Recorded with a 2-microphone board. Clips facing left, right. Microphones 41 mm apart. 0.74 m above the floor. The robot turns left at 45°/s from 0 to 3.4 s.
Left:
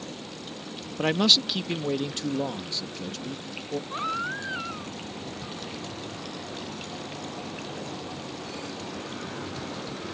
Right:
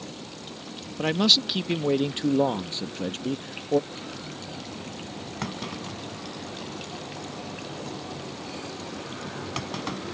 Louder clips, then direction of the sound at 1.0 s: Even; 15° left.